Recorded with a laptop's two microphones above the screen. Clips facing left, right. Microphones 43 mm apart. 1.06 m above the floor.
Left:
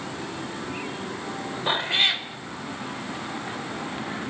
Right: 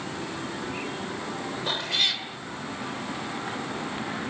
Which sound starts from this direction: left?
A cat meowing, at 1.7 s.